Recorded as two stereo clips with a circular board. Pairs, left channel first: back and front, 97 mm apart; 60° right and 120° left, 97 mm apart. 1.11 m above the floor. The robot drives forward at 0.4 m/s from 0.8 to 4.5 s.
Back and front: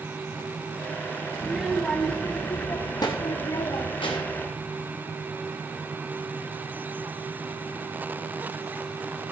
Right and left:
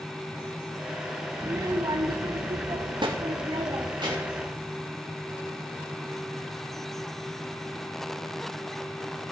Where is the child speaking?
70° left, 0.5 m; by 4.5 s 160° left, 1.2 m.